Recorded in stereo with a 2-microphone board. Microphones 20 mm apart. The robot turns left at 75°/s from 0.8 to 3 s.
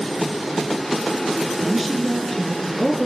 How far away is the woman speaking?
About 1.5 m.